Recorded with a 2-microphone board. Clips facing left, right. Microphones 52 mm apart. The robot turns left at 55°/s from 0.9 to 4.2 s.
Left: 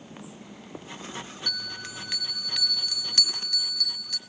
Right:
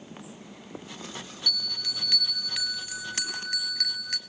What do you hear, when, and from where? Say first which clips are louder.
1.5 s a bell: right 5 dB; 55° left, 1.2 m; by 4.2 s 95° right, 1.2 m